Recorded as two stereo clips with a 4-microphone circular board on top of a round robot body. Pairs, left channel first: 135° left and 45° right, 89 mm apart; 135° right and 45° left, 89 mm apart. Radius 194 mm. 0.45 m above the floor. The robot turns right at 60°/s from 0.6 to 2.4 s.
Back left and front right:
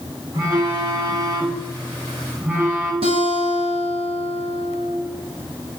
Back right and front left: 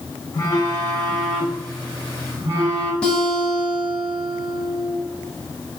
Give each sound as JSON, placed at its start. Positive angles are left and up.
{"t": 0.3, "sound": "a phone buzzing", "azimuth_deg": -85, "distance_m": 1.8}
{"t": 3.0, "sound": "a guitar", "azimuth_deg": -55, "distance_m": 0.8}